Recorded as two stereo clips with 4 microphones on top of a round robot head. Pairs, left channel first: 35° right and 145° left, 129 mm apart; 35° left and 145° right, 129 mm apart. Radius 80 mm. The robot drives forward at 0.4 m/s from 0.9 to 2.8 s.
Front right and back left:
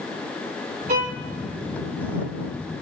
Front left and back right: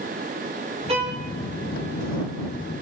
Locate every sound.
0.9 s a violin: 170° left, 3.5 m